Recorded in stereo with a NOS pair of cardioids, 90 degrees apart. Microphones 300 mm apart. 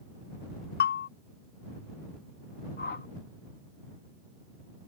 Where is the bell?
35° left.